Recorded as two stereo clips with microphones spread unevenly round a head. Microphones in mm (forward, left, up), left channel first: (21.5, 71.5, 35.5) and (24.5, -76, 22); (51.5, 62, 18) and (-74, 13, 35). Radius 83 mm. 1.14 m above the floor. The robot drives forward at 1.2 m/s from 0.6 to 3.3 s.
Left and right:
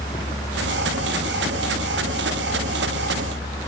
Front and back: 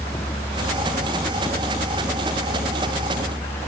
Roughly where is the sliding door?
I don't hear a sliding door.